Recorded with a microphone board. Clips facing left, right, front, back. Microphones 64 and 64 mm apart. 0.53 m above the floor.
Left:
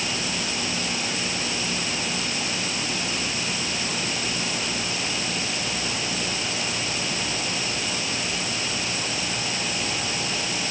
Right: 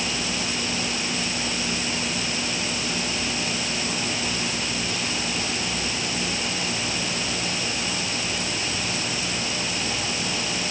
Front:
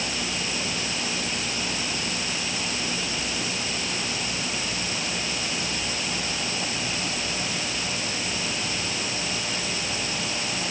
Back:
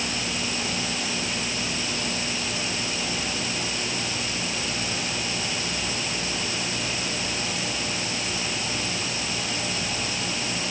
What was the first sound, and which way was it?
Only background noise.